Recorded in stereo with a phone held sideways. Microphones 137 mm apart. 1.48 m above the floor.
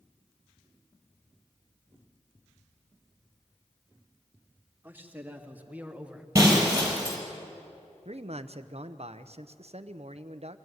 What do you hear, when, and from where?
4.8 s a man speaking: 15° right (ahead or behind), 2.5 m; by 6.2 s 5° right (ahead or behind), 1.1 m
6.3 s breaking glass: 25° right (ahead or behind), 4.5 m
8.1 s a man speaking: 55° right (ahead or behind), 0.8 m